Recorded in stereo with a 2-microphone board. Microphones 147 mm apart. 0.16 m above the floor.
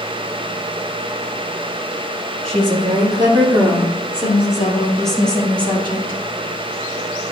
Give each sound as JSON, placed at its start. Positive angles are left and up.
{"t": 2.5, "sound": "a woman speaking", "side_deg": -40, "distance_m": 2.5}